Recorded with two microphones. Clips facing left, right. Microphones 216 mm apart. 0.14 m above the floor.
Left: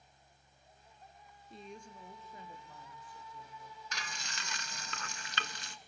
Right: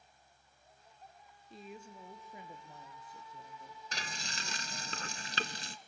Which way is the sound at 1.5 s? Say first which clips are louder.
Even; centre (ahead or behind).